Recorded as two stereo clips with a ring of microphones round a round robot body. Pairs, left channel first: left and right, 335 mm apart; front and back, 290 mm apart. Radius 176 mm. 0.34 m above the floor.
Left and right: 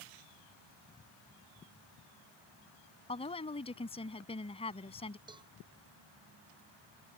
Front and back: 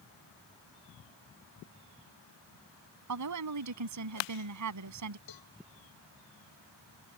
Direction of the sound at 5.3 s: 15° right.